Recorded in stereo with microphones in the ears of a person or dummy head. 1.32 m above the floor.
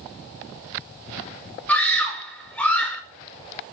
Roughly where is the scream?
Centre.